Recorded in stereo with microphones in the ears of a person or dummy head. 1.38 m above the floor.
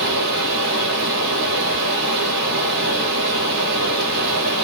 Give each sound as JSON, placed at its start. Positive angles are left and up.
{"t": 0.0, "sound": "running water", "side_deg": -65, "distance_m": 1.6}